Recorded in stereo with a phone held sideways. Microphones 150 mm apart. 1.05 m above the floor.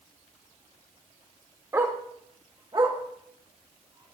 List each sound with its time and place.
1.7 s a dog barking: 20° right (ahead or behind), 1.1 m; by 4.1 s 45° right (ahead or behind), 2.5 m